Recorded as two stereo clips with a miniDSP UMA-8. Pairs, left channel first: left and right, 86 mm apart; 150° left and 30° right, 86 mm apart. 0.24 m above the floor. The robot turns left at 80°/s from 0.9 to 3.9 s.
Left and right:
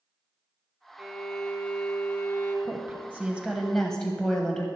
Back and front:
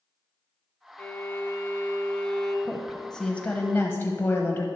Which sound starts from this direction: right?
A woman speaking, at 2.6 s.